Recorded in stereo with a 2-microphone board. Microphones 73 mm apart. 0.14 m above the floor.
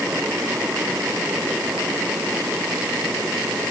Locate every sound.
Only background noise.